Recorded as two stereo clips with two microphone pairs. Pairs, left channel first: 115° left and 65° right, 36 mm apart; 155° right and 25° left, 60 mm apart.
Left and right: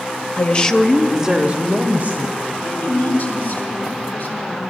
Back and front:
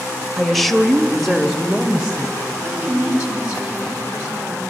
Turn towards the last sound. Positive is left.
turn(degrees=100)